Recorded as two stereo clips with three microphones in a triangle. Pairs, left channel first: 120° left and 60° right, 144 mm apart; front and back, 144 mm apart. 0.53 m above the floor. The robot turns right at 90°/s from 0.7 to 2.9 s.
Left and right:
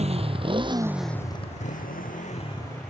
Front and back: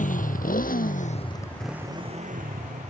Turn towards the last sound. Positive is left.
turn(degrees=-150)